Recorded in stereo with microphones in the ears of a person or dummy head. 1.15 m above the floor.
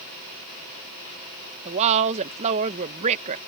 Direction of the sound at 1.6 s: 35° right (ahead or behind).